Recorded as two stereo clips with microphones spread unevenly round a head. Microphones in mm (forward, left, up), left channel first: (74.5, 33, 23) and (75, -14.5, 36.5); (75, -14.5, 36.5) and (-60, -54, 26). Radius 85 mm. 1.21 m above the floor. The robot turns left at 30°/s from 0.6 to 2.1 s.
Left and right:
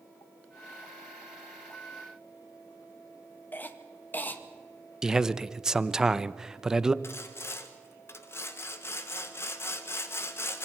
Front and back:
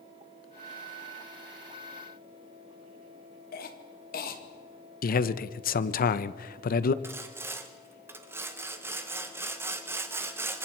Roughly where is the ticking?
I don't hear ticking.